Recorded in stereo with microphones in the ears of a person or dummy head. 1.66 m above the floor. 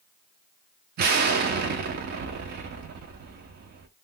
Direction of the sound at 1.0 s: 55° right (ahead or behind).